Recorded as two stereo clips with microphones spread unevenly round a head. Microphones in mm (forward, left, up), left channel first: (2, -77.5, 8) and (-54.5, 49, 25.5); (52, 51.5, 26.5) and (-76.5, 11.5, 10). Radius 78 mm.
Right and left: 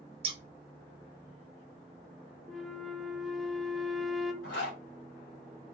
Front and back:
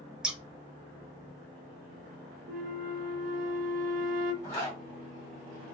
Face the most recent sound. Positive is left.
turn(degrees=-30)